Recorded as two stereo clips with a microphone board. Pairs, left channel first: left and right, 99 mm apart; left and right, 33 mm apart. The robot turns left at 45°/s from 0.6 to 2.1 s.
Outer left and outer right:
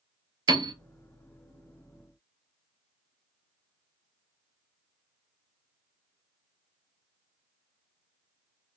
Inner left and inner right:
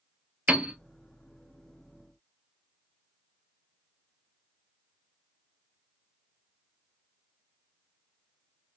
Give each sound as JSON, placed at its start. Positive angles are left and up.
{"t": 0.5, "sound": "a piano", "side_deg": -45, "distance_m": 0.5}